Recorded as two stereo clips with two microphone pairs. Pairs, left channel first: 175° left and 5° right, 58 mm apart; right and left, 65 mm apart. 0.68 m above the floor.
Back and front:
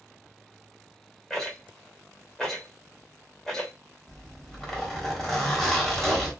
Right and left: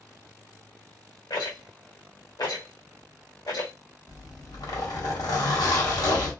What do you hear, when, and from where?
1.3 s a rattle: 105° right, 1.0 m
4.1 s a zipper: 100° right, 1.1 m